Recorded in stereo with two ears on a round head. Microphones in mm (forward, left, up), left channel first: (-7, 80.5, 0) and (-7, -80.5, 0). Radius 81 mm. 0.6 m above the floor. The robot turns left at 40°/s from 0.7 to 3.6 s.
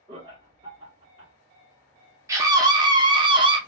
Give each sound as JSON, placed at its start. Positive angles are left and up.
{"t": 0.1, "sound": "laughter", "side_deg": -30, "distance_m": 0.9}
{"t": 2.3, "sound": "a scream", "side_deg": -15, "distance_m": 0.6}